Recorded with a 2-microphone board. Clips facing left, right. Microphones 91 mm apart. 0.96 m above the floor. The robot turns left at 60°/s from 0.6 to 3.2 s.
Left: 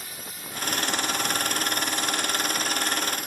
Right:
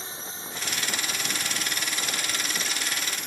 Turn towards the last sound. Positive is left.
turn(degrees=175)